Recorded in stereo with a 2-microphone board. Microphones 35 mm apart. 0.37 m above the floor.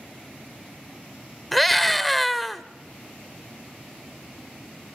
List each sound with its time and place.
1.5 s a scream: centre (ahead or behind), 0.9 m